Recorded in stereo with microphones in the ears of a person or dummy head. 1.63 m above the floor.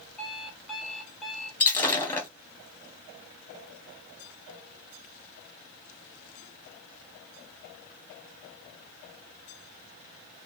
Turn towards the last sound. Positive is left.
turn(degrees=10)  # may be behind; listen again after turning